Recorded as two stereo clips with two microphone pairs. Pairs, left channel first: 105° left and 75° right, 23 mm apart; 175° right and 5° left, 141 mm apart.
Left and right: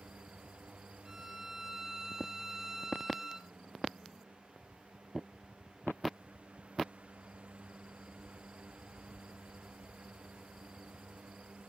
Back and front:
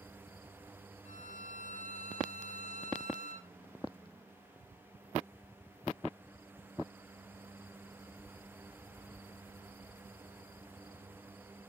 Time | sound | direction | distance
1.1 | a violin | 150° right | 1.5 m